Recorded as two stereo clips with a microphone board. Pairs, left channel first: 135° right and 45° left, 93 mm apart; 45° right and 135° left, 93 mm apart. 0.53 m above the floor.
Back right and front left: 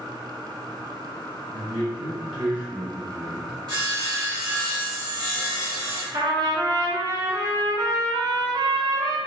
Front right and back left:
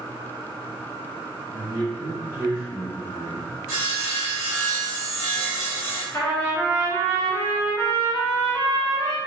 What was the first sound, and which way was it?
A man speaking, 155° left.